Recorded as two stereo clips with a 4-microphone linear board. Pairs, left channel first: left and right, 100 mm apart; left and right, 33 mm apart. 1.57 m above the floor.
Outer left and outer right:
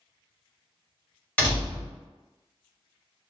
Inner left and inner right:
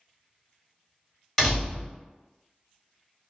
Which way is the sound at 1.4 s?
15° left (ahead or behind).